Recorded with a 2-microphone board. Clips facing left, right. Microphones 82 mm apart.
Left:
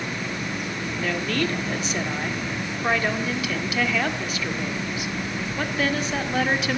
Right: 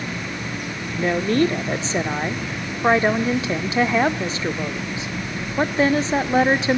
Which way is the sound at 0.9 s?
30° right (ahead or behind).